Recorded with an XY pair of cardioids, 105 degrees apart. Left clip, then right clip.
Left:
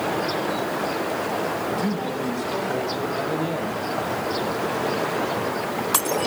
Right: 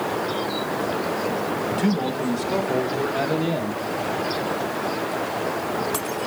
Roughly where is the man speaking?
Ahead right.